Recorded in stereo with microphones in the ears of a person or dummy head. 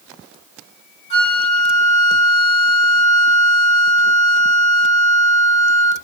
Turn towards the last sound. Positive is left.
turn(degrees=35)  # may be behind; listen again after turning